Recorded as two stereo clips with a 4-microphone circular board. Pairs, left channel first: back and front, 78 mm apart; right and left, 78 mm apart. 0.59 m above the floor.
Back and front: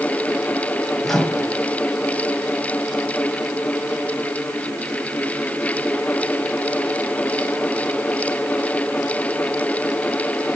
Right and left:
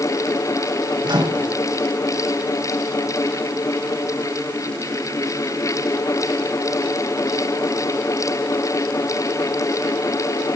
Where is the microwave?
95° left, 2.5 m.